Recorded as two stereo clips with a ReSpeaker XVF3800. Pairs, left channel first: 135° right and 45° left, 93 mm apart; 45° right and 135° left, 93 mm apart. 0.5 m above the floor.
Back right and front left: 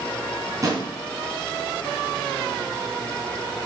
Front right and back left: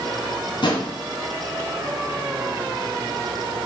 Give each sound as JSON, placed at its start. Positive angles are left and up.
{"t": 0.6, "sound": "a drawer", "azimuth_deg": -10, "distance_m": 3.0}